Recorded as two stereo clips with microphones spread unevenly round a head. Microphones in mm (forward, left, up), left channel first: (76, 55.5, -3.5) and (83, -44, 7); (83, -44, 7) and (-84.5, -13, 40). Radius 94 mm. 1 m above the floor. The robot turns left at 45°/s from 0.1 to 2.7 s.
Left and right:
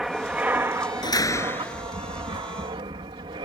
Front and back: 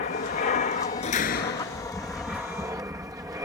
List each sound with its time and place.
0.0 s an aircraft: straight ahead; by 3.5 s 115° right
1.0 s a door slam: 50° left; by 1.9 s 10° left